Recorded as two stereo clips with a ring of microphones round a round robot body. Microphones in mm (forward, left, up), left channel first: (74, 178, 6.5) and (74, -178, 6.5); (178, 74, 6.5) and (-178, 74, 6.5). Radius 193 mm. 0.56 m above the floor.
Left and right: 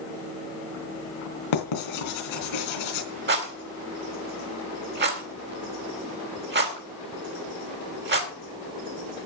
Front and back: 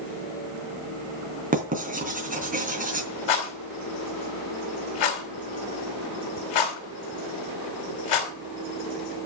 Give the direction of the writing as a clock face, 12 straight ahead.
8 o'clock.